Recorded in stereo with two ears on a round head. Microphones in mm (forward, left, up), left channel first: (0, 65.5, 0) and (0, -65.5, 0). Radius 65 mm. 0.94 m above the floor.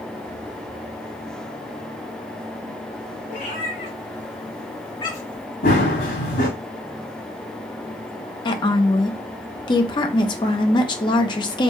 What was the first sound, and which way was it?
A cat meowing, 65° left (ahead or behind).